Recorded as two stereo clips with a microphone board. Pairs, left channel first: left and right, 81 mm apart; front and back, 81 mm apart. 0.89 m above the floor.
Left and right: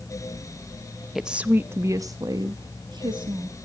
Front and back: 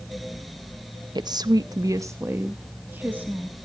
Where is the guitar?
No guitar in this recording.